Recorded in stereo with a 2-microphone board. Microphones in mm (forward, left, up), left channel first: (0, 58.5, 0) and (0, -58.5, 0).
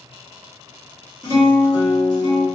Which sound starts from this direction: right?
A guitar, at 1.2 s.